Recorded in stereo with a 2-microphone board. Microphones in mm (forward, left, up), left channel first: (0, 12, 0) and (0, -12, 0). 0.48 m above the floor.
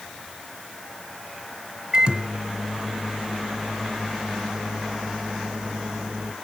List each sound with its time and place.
1.9 s a microwave: 30° right (ahead or behind), 1.8 m